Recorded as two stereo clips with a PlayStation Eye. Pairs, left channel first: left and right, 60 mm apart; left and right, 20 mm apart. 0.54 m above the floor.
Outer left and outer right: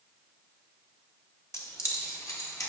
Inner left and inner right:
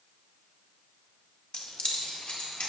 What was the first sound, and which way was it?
Keys jangling, 55° left (ahead or behind).